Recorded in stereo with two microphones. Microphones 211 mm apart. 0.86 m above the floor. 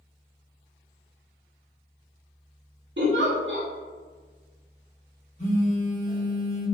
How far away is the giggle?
About 0.7 m.